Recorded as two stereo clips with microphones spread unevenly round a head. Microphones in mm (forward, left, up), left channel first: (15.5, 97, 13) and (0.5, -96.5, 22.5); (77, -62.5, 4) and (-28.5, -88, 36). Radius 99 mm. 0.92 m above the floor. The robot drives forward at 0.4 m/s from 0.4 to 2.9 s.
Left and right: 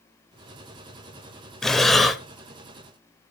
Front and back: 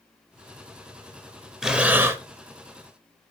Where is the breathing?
Straight behind, 0.6 m.